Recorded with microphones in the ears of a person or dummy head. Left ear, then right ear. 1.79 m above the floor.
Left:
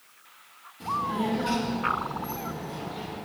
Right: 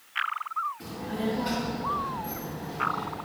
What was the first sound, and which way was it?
A child speaking, centre (ahead or behind).